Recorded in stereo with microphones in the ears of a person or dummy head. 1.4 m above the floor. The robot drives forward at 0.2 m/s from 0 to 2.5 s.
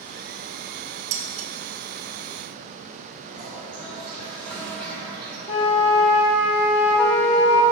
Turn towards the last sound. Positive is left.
turn(degrees=40)  # may be behind; listen again after turning